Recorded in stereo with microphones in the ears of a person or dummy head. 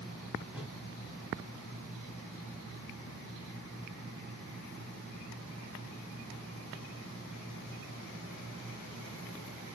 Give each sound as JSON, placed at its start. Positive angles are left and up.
{"t": 0.5, "sound": "a whoosh", "side_deg": -5, "distance_m": 2.0}